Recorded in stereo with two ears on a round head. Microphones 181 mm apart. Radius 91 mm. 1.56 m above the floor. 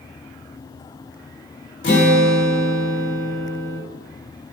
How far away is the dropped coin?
I don't hear a dropped coin.